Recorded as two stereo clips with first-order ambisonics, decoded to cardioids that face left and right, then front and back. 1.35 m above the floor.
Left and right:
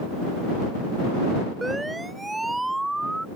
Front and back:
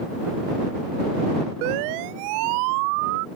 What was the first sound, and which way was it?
A siren, 170° right.